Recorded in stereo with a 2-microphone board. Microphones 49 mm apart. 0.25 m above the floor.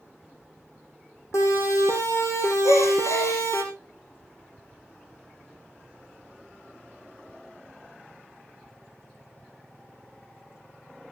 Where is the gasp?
80° left, 5 m.